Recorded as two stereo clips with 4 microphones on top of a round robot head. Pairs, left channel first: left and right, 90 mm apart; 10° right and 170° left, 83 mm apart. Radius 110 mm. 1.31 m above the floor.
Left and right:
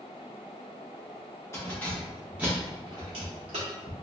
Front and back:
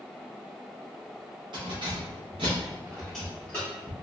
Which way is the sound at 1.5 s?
150° left.